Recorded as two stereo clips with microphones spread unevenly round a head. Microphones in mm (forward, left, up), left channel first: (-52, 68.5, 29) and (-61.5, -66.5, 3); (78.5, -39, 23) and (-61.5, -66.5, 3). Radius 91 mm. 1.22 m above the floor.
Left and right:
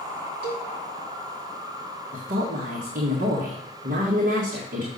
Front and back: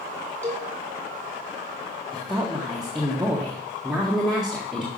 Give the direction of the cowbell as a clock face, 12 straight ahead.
2 o'clock.